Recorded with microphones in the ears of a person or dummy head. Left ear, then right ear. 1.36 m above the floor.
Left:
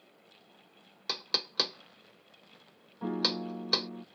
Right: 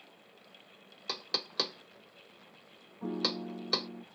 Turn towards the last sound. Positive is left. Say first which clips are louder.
# left 3 dB
turn(degrees=50)  # may be behind; listen again after turning